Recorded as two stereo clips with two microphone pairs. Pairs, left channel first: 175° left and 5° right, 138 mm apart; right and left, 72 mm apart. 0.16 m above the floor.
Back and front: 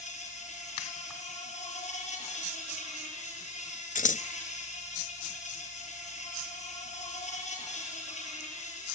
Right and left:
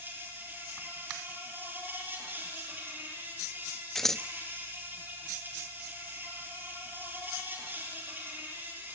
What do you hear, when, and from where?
0.0 s an insect: 150° left, 5.5 m
4.0 s scissors: 175° right, 0.5 m